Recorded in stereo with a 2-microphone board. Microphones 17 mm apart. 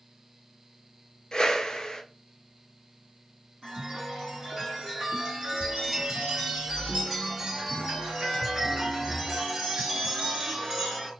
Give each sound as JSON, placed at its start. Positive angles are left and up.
{"t": 1.3, "sound": "a whoosh", "side_deg": 45, "distance_m": 0.6}
{"t": 3.6, "sound": "a chime", "side_deg": -35, "distance_m": 2.0}